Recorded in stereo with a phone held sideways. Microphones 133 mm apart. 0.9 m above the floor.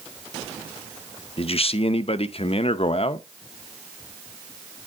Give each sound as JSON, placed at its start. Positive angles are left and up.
{"t": 1.4, "sound": "a man speaking", "side_deg": 50, "distance_m": 0.5}